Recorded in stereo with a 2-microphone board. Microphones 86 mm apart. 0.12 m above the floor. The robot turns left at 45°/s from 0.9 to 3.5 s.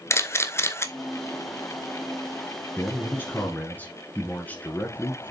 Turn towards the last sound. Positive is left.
turn(degrees=20)  # may be behind; listen again after turning